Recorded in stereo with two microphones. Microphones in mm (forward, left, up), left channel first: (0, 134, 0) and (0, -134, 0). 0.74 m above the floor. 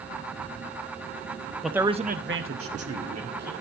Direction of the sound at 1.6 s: Centre (ahead or behind).